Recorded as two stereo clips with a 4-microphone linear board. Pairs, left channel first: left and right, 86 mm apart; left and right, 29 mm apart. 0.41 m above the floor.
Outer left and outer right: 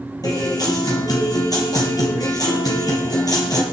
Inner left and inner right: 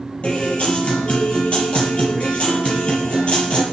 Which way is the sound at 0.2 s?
45° left (ahead or behind).